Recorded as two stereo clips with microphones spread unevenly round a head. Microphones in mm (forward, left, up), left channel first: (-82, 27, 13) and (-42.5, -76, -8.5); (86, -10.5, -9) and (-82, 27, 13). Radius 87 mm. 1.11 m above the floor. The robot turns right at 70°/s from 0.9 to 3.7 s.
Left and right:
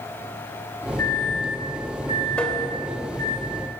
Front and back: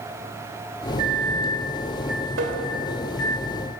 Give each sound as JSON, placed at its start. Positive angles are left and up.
{"t": 1.0, "sound": "a microwave", "azimuth_deg": 175, "distance_m": 4.0}
{"t": 2.4, "sound": "tapping", "azimuth_deg": -175, "distance_m": 2.5}